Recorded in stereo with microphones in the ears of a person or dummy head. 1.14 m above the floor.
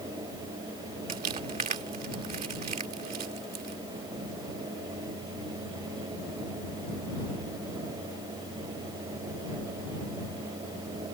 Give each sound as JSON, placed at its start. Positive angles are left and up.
{"t": 1.1, "sound": "crumpling", "side_deg": -35}